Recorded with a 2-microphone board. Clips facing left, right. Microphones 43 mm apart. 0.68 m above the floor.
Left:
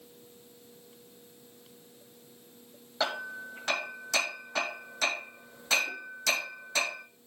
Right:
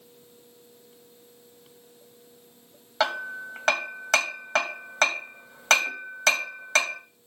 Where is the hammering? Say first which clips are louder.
Right 6 dB; 80° right, 3 m.